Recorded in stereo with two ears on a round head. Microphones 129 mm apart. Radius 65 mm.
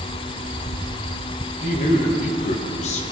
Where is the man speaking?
50° left (ahead or behind), 1.5 m; by 3.0 s 45° left (ahead or behind), 0.9 m.